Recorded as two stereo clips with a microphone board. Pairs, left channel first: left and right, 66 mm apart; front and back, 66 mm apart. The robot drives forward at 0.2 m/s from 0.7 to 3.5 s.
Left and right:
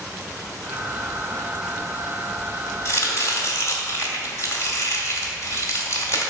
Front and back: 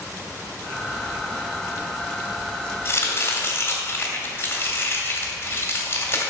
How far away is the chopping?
About 2 m.